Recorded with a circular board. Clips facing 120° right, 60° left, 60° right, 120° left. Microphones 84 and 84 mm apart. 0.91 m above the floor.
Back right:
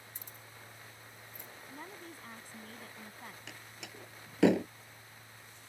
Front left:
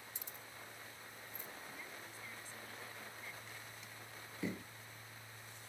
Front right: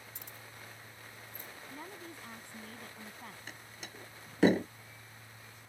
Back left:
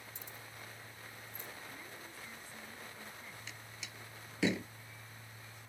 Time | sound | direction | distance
0.1 | keys jangling | 80° right | ?
1.7 | a woman speaking | 85° right | ?
3.5 | a door slam | 105° right | ?